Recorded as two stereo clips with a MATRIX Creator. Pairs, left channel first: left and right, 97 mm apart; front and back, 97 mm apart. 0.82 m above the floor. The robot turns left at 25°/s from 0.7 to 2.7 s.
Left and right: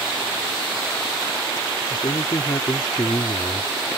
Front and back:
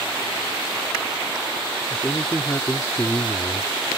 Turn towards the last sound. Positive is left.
turn(degrees=60)